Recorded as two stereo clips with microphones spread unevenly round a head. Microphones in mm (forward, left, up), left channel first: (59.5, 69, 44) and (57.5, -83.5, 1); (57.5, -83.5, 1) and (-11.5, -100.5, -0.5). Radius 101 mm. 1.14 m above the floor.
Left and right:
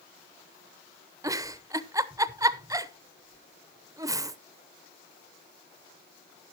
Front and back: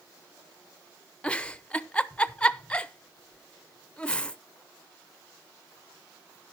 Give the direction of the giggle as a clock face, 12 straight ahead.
2 o'clock.